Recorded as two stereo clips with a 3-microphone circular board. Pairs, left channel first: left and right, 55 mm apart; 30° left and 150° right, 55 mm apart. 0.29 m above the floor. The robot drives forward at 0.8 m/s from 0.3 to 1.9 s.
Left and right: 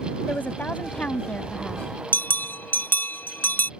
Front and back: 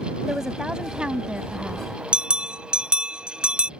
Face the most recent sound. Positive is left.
turn(degrees=140)